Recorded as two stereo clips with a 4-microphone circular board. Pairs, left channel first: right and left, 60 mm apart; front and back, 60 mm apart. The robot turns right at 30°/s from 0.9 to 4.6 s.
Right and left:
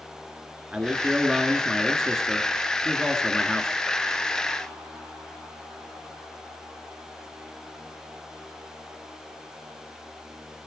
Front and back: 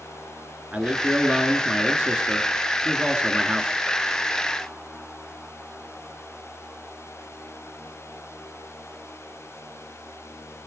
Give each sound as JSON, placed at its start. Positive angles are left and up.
{"t": 0.7, "sound": "a man speaking", "azimuth_deg": 140, "distance_m": 1.2}